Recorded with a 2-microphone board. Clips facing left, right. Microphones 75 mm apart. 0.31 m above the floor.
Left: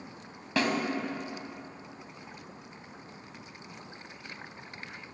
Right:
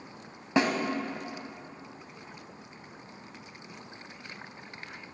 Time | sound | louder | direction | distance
0.6 | a snare drum | right 3 dB | 20° right (ahead or behind) | 0.7 m